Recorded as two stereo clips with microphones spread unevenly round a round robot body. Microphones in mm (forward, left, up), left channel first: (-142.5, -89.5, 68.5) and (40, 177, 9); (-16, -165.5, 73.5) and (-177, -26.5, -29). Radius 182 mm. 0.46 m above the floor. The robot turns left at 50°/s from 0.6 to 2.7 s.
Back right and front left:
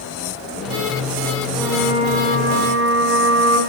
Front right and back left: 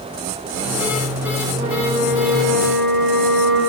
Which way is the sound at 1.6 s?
135° left.